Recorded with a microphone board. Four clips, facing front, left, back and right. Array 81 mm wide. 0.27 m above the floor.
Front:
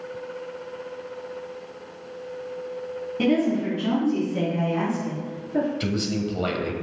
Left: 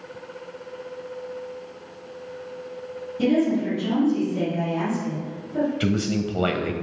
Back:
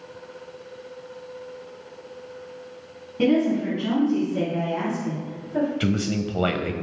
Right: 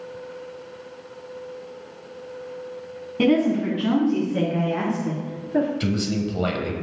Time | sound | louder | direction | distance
3.2 | a woman speaking | right 2 dB, back 2 dB | 85° right | 2.5 m
5.8 | a man speaking | left 1 dB, back 2 dB | 150° left | 1.0 m